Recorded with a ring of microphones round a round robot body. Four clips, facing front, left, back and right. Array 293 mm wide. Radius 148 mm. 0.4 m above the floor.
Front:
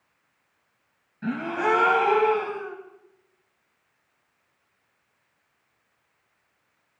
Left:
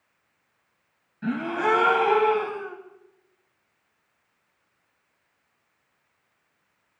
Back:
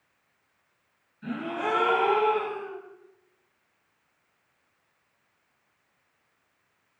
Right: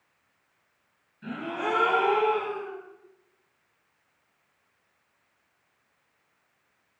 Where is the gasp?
40° left, 3.5 m.